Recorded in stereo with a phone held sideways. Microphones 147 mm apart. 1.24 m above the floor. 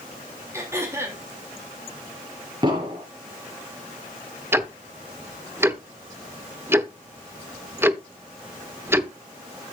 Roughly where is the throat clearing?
Centre.